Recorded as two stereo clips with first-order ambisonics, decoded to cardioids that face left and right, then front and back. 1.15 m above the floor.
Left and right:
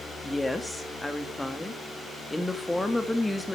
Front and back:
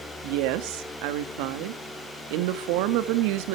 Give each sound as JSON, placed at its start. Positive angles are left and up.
{"t": 0.2, "sound": "a woman speaking", "azimuth_deg": 170, "distance_m": 1.8}